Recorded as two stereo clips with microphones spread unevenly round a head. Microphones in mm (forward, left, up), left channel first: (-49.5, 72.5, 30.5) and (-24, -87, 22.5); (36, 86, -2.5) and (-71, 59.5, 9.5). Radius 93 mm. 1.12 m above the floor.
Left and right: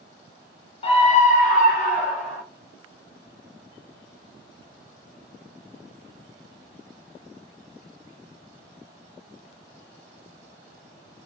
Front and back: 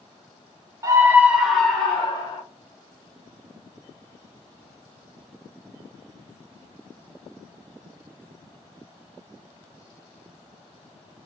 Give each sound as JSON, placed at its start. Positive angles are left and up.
{"t": 0.8, "sound": "a scream", "azimuth_deg": 140, "distance_m": 0.8}